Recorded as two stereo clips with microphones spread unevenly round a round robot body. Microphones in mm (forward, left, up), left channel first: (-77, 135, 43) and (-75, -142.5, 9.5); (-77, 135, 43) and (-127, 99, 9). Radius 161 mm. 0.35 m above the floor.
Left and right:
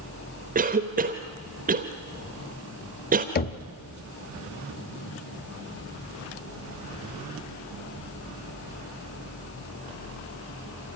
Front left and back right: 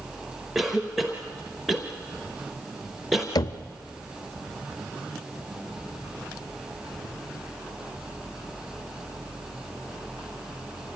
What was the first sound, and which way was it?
A cough, 110° right.